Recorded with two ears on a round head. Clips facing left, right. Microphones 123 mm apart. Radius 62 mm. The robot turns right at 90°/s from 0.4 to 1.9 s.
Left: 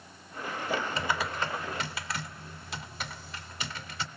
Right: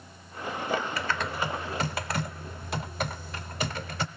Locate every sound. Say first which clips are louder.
1.0 s typing on a keyboard: right 1 dB; 155° left, 0.5 m; by 4.1 s 125° right, 0.5 m